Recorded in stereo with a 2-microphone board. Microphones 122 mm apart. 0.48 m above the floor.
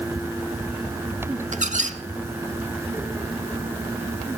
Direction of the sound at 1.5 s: 80° right.